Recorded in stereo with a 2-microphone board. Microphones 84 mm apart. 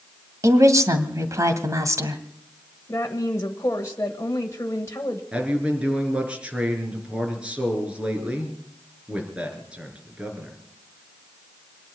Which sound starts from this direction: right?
A woman speaking, at 0.4 s.